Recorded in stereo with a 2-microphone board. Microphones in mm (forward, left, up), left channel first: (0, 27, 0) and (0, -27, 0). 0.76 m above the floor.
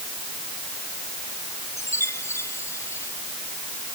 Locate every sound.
1.8 s a chime: 60° left (ahead or behind)